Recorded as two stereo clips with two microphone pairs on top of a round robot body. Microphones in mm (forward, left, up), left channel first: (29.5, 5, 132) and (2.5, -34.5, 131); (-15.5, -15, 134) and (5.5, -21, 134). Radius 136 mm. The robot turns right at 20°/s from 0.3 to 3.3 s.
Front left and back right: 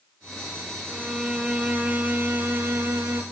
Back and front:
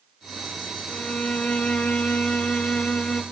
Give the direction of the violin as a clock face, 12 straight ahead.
7 o'clock.